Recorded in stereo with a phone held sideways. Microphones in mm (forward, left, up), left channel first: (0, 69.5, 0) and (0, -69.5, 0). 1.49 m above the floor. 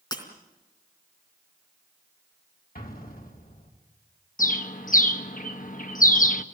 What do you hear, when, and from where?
0.1 s breaking glass: 30° left (ahead or behind), 3.5 m
2.8 s an explosion: 85° left, 3.5 m
4.4 s a bird: 65° left (ahead or behind), 1.2 m